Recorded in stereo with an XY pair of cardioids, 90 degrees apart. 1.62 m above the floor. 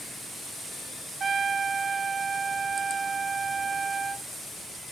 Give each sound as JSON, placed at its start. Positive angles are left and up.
{"t": 1.2, "sound": "a trumpet", "azimuth_deg": -55, "distance_m": 1.3}